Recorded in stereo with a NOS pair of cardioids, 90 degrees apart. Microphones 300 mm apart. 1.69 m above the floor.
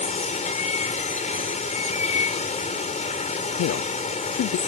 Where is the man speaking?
55° left.